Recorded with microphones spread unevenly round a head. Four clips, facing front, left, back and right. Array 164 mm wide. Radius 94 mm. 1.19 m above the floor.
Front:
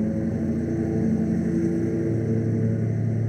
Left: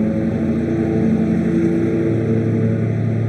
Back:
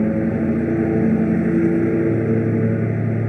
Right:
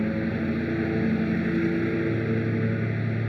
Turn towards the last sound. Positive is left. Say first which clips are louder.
# left 8 dB, back 6 dB
turn(degrees=145)